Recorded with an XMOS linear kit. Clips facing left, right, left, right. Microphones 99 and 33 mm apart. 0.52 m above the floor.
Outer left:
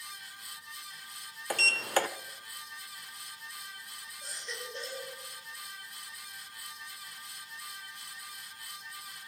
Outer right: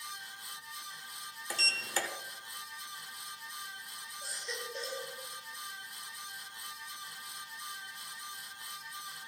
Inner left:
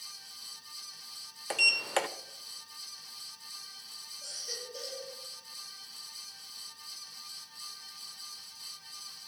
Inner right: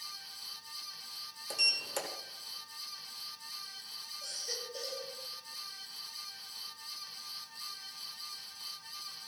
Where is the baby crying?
5° right (ahead or behind), 9.5 m.